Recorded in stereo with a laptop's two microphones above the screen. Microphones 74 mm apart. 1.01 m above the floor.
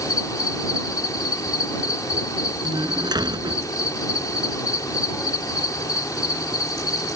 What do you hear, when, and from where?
0.0 s an insect: 55° left (ahead or behind)
2.6 s a door slam: 70° right (ahead or behind)